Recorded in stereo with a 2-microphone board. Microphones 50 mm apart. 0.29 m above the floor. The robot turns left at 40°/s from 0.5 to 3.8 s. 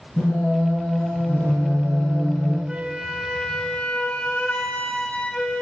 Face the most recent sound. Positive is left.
turn(degrees=155)